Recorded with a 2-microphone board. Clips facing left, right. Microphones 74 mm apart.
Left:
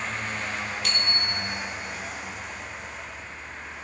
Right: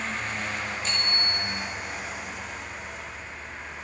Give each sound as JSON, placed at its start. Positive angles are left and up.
{"t": 0.8, "sound": "a bicycle bell", "side_deg": 80, "distance_m": 3.0}